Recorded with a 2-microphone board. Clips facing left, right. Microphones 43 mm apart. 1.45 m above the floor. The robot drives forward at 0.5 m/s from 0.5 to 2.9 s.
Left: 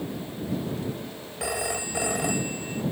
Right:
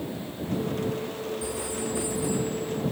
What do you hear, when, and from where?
1.4 s a phone ringing: 70° left (ahead or behind); by 2.8 s 65° left (ahead or behind)